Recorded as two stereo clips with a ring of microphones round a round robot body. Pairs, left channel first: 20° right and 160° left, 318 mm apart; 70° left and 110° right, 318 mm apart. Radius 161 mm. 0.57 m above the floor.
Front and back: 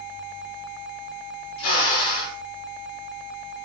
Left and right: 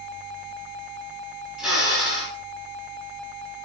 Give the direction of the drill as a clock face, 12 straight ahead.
1 o'clock.